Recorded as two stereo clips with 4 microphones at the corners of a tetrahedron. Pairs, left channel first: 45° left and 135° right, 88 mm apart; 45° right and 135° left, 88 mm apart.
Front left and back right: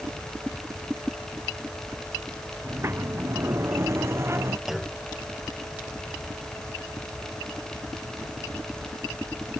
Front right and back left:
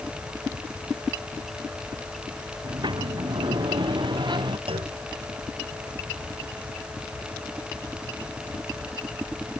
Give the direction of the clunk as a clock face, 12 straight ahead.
7 o'clock.